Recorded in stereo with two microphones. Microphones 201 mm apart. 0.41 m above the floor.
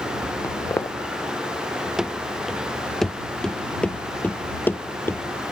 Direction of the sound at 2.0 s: 5° right (ahead or behind).